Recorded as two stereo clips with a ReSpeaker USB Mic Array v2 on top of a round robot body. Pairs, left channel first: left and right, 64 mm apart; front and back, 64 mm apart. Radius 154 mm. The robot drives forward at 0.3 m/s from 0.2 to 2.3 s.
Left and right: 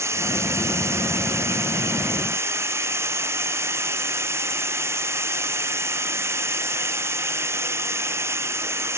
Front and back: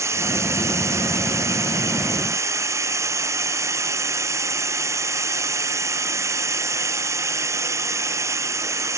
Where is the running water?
135° right; by 9.0 s 140° right.